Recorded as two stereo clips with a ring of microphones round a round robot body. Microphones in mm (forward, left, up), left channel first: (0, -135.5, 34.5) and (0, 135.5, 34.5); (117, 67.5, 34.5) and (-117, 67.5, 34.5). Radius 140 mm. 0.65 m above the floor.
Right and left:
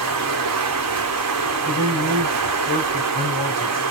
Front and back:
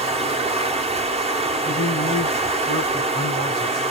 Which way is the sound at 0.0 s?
115° left.